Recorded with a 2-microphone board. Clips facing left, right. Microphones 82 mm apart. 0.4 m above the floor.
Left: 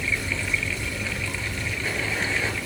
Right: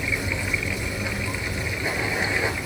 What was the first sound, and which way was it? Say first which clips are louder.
Running water: right 1 dB; 20° right (ahead or behind).